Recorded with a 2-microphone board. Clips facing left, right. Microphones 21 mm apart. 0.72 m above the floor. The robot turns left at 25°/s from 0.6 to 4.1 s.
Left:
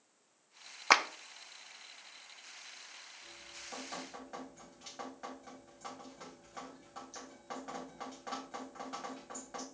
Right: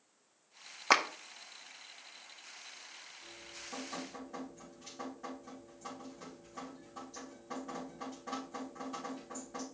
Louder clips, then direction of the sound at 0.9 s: Left 1 dB; 10° left (ahead or behind).